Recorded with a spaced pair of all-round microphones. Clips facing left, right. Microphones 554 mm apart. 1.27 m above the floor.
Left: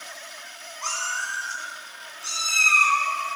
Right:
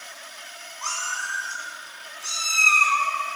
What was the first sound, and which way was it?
A cat meowing, 50° left (ahead or behind).